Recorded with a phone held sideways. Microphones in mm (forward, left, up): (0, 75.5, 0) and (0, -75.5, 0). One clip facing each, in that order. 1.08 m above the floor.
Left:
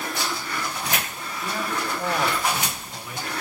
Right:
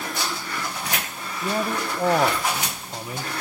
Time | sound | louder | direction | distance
1.4 | a man speaking | right 4 dB | 40° right (ahead or behind) | 0.9 m